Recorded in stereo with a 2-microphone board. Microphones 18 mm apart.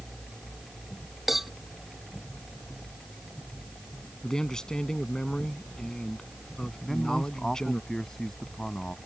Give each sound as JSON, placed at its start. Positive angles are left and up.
{"t": 1.3, "sound": "a cowbell", "side_deg": -15}
{"t": 4.2, "sound": "a man speaking", "side_deg": 40}
{"t": 6.8, "sound": "a man speaking", "side_deg": 25}